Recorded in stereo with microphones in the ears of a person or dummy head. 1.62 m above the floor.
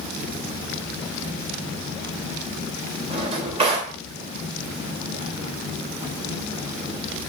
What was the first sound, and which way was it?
A drawer, 35° right (ahead or behind).